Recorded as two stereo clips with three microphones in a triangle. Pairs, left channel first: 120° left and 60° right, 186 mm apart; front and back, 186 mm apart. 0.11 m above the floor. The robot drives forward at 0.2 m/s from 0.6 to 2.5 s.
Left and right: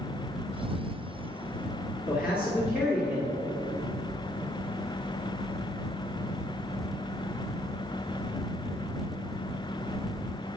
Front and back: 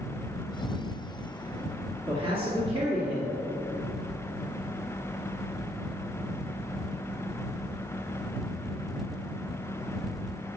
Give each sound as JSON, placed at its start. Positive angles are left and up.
{"t": 2.1, "sound": "a man speaking", "azimuth_deg": -135, "distance_m": 2.0}